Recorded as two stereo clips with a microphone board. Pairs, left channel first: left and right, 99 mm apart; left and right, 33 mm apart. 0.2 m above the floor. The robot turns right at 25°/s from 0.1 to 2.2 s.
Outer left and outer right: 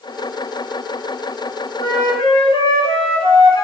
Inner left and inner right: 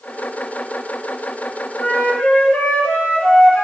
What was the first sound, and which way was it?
A flute, 55° left (ahead or behind).